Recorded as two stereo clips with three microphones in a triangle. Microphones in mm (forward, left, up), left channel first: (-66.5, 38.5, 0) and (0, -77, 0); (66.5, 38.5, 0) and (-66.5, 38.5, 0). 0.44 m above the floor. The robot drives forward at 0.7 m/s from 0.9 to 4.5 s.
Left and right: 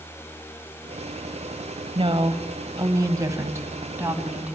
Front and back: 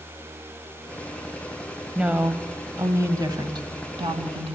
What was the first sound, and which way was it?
A woman speaking, 95° right.